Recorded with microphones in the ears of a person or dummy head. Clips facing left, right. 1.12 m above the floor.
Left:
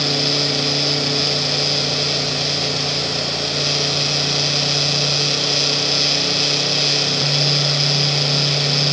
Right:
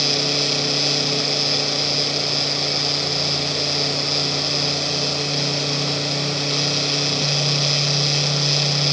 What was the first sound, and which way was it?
Only background noise.